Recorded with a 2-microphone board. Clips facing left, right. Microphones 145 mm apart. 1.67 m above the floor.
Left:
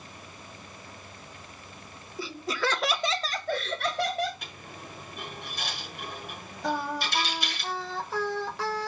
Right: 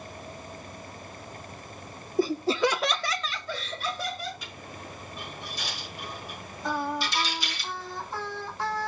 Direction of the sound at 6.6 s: 70° left (ahead or behind).